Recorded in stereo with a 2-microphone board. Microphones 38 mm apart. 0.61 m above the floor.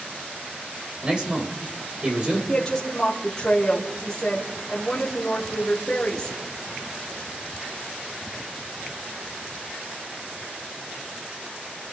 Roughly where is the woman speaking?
Centre.